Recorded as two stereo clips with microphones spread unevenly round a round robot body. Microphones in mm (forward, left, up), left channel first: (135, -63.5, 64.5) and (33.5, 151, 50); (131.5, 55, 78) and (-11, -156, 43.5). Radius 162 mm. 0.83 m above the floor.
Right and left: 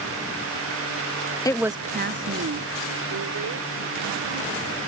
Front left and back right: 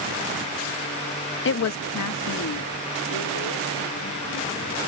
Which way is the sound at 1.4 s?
10° left.